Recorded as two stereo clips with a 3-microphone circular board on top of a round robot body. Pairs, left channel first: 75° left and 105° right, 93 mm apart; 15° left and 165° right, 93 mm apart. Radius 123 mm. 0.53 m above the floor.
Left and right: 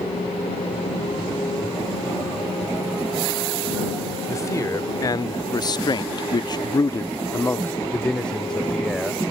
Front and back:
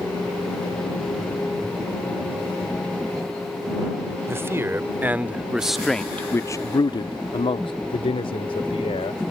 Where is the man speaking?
135° left; by 9.2 s 10° right.